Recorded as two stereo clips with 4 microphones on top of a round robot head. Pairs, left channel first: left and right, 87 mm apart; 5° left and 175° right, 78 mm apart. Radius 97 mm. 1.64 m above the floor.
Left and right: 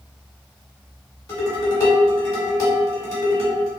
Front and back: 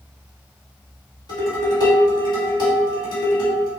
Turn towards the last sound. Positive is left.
turn(degrees=35)